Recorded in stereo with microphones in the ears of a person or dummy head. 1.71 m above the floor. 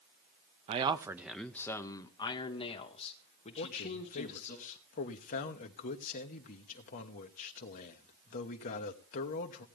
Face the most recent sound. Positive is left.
turn(degrees=45)  # may be behind; listen again after turning